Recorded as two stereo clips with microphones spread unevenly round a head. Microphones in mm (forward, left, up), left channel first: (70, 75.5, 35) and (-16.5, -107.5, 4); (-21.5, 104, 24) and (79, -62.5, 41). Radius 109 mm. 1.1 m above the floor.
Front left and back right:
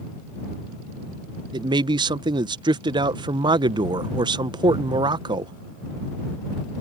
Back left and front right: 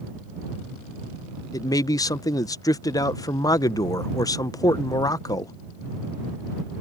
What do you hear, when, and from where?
1.5 s a man speaking: 175° right